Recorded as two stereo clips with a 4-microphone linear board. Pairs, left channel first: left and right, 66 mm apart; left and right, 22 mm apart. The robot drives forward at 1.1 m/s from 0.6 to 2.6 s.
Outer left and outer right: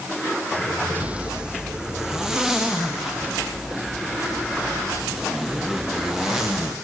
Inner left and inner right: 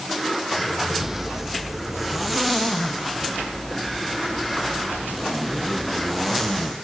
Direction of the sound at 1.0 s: 25° right (ahead or behind).